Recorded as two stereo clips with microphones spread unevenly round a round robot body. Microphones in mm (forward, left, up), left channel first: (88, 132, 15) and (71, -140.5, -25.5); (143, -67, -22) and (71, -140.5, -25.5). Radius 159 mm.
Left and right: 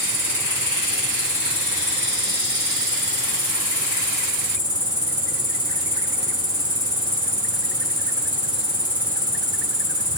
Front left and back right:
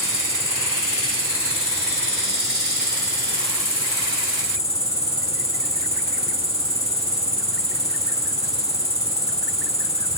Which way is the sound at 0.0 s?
10° right.